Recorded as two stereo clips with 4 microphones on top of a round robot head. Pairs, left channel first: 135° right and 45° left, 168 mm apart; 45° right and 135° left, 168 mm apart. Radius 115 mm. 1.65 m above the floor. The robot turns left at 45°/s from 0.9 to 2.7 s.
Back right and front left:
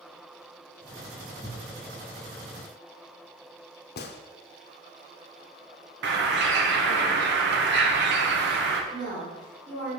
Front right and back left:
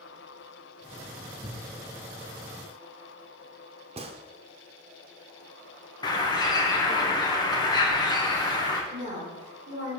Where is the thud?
170° left, 1.6 m; by 1.7 s 155° left, 1.6 m.